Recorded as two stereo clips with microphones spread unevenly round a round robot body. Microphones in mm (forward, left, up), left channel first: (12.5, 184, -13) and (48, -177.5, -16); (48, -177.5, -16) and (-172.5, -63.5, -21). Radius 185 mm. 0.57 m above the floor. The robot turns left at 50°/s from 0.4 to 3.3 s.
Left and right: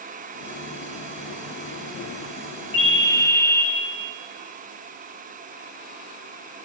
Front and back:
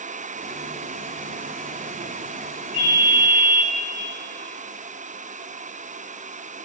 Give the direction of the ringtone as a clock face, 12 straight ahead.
10 o'clock.